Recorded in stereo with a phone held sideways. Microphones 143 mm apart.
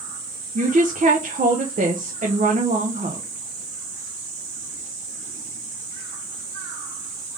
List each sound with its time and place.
0.6 s a woman speaking: 65° right (ahead or behind), 0.9 m